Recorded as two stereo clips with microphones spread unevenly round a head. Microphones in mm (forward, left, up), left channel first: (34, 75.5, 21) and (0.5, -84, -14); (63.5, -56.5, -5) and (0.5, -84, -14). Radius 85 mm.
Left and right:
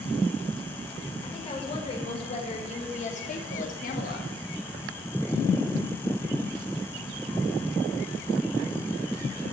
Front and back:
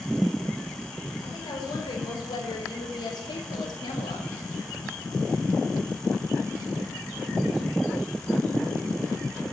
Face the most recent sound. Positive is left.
turn(degrees=55)